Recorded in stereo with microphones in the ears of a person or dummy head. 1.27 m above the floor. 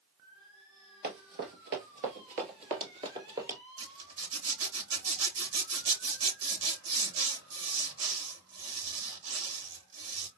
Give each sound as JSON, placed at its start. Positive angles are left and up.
{"t": 1.0, "sound": "running footsteps", "side_deg": -50, "distance_m": 2.0}
{"t": 3.8, "sound": "a zipper", "side_deg": -75, "distance_m": 3.0}